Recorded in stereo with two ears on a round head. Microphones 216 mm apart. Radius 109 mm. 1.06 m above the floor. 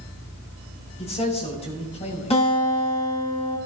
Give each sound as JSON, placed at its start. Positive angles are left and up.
{"t": 1.0, "sound": "a man speaking", "side_deg": 25, "distance_m": 7.0}
{"t": 2.3, "sound": "a guitar", "side_deg": 25, "distance_m": 8.5}